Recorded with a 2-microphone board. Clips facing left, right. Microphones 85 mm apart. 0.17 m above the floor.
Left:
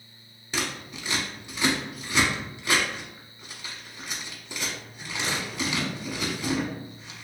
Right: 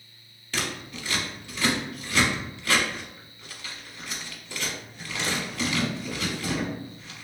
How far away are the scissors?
About 0.7 m.